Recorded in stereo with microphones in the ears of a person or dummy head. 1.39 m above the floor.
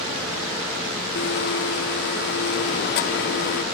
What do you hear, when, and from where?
1.1 s a blender: 60° left (ahead or behind), 1.4 m